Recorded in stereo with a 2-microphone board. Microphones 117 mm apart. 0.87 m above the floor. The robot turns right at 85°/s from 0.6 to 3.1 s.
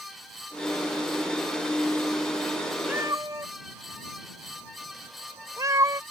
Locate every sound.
2.9 s a cat meowing: 15° right (ahead or behind); by 6.0 s 30° right (ahead or behind)